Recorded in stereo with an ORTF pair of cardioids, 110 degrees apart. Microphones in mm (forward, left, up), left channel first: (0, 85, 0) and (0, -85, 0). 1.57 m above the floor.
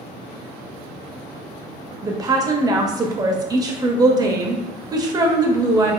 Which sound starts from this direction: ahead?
A woman speaking, at 2.0 s.